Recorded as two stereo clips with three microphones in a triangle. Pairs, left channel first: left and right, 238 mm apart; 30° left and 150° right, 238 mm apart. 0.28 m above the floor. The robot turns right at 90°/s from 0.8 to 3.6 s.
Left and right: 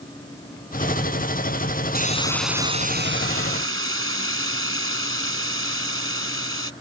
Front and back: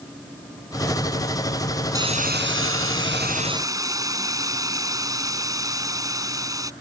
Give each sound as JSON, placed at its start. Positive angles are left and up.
{"t": 1.9, "sound": "a hiss", "azimuth_deg": 135}